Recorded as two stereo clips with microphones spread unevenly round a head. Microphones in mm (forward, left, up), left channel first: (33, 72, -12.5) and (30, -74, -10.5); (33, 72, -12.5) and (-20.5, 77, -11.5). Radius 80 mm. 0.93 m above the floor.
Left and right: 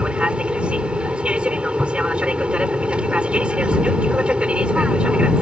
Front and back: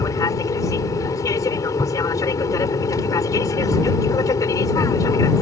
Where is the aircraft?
10° right.